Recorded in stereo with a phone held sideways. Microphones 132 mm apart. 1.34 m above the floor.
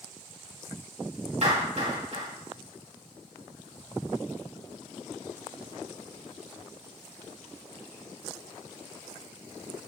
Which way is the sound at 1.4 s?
60° right (ahead or behind).